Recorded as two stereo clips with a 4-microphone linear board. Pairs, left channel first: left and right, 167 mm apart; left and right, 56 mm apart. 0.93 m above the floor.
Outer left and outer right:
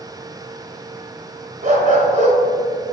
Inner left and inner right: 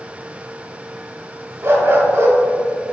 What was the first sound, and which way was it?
A dog barking, 50° right (ahead or behind).